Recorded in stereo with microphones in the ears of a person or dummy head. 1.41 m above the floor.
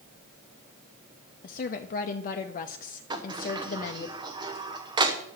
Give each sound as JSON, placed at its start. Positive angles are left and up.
{"t": 1.4, "sound": "a woman speaking", "side_deg": 45, "distance_m": 0.6}
{"t": 3.1, "sound": "a sliding door", "side_deg": -20, "distance_m": 1.0}